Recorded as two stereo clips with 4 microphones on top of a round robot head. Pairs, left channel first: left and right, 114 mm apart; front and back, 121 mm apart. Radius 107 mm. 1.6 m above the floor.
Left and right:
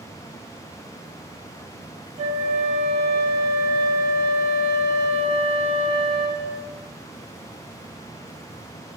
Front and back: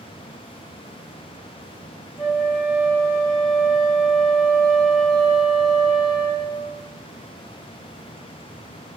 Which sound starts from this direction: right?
A flute, at 2.2 s.